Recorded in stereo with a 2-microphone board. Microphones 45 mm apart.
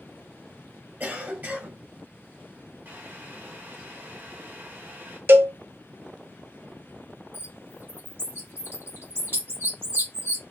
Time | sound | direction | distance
1.0 | a cough | 50° right (ahead or behind) | 2 m
2.9 | boiling | 50° right (ahead or behind) | 2.5 m
5.3 | a cowbell | 55° right (ahead or behind) | 0.7 m
7.3 | a bird | 60° right (ahead or behind) | 3.5 m